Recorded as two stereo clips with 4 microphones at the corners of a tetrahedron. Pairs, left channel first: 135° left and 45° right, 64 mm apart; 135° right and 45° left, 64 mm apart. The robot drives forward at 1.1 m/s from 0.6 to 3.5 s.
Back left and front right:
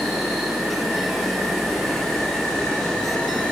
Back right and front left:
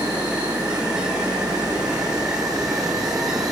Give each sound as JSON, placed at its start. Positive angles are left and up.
{"t": 0.0, "sound": "an insect", "azimuth_deg": 40, "distance_m": 7.0}